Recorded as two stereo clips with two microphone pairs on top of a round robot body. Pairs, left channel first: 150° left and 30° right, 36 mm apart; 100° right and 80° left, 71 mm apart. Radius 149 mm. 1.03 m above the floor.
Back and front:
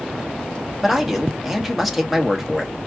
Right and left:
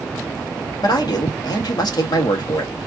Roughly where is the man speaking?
Behind right.